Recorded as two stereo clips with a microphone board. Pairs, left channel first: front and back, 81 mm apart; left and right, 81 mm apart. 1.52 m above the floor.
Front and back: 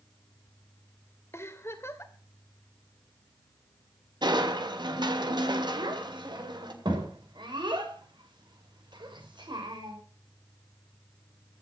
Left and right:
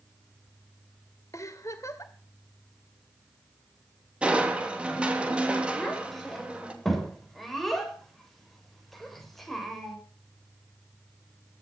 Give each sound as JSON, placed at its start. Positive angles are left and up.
{"t": 1.3, "sound": "a giggle", "azimuth_deg": 50, "distance_m": 2.0}
{"t": 4.2, "sound": "crushing", "azimuth_deg": -165, "distance_m": 2.5}
{"t": 5.7, "sound": "a child speaking", "azimuth_deg": 180, "distance_m": 6.0}